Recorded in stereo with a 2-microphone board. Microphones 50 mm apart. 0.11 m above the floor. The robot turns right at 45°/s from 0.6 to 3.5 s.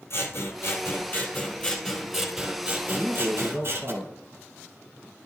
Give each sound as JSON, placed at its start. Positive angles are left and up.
{"t": 0.1, "sound": "scissors", "azimuth_deg": 110, "distance_m": 2.5}
{"t": 2.9, "sound": "a man speaking", "side_deg": -10, "distance_m": 2.0}